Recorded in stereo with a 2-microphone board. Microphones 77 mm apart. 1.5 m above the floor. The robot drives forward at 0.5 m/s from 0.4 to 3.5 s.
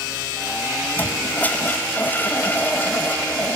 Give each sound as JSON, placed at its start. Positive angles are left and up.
{"t": 1.0, "sound": "a toilet flushing", "side_deg": 20}